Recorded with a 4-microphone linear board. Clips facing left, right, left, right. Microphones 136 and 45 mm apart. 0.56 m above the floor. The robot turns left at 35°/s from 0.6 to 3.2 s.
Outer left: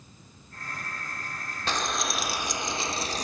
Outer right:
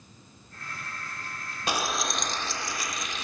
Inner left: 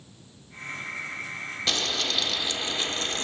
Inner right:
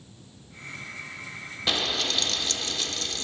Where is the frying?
165° right, 0.5 m; by 3.2 s 140° left, 0.5 m.